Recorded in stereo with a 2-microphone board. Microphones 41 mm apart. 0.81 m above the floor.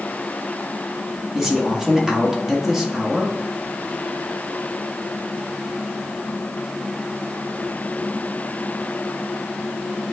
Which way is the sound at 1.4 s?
10° right (ahead or behind).